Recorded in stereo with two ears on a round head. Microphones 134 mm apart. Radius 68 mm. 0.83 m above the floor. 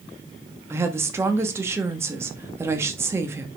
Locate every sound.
0.7 s a woman speaking: 15° right (ahead or behind), 1.4 m